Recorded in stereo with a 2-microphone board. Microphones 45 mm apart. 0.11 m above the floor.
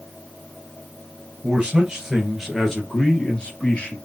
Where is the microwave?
I don't hear a microwave.